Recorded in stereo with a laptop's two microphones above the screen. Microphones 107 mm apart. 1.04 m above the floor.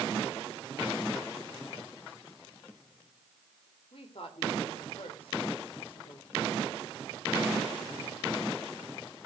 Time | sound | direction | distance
3.9 | a woman speaking | 60° left (ahead or behind) | 3 m